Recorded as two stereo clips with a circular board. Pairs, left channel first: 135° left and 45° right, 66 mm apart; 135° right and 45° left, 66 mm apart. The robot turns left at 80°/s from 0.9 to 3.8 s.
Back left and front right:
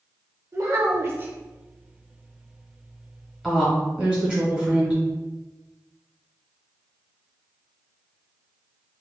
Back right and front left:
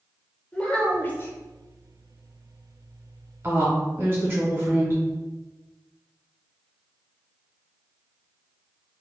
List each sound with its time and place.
0.5 s a child speaking: 70° right, 0.5 m; by 1.3 s 100° right, 0.5 m
3.4 s a woman speaking: 50° left, 1.1 m; by 5.0 s 20° left, 1.1 m